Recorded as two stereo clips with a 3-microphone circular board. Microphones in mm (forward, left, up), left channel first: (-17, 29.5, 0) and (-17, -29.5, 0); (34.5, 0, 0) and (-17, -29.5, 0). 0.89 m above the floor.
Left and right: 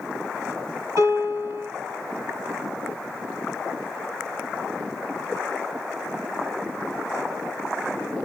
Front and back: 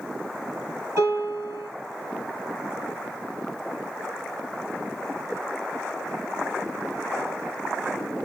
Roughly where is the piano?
Behind right.